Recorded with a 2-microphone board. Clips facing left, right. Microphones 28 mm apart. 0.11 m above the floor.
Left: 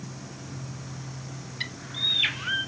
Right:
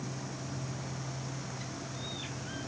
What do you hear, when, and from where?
1.6 s a bird: 80° left